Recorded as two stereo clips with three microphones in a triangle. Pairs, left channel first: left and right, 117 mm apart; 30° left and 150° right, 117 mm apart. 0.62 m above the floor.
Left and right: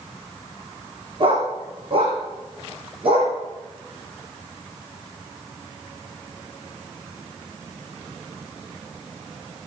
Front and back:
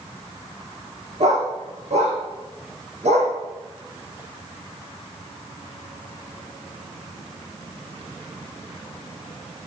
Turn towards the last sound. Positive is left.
turn(degrees=-130)